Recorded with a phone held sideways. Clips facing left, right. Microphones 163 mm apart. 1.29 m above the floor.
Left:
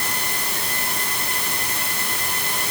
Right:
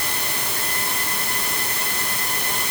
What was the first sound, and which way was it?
Only background noise.